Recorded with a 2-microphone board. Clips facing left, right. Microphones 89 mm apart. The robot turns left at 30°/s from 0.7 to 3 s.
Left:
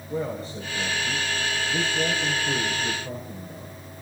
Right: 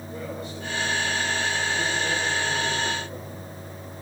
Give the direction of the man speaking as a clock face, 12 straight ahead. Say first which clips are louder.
Left 6 dB; 7 o'clock.